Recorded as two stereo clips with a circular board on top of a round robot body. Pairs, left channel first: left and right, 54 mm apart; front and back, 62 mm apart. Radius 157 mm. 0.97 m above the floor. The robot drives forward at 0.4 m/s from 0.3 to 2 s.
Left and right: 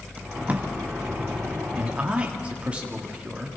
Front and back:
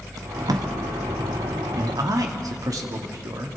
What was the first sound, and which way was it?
Tape being pulled, 155° right.